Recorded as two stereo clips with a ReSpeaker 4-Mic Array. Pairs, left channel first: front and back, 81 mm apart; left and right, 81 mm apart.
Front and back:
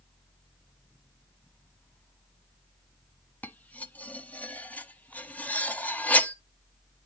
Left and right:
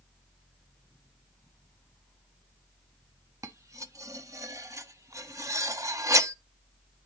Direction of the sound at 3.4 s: 60° right.